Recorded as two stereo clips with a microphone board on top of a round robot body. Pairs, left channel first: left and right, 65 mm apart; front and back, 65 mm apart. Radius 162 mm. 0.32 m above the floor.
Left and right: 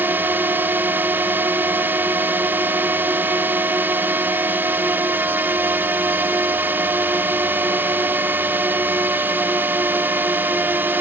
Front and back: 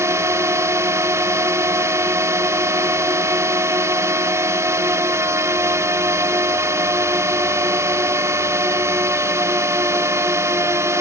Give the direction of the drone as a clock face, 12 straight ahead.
5 o'clock.